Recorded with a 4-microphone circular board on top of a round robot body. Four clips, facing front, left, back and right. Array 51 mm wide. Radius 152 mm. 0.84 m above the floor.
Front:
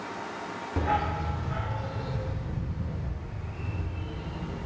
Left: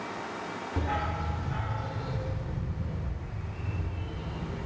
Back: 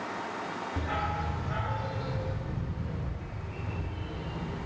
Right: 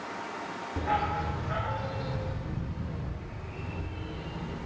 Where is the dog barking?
Straight ahead, 0.5 m; by 4.7 s 105° right, 5.5 m.